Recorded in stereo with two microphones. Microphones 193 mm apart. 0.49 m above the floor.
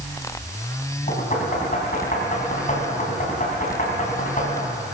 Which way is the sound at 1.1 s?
45° left (ahead or behind).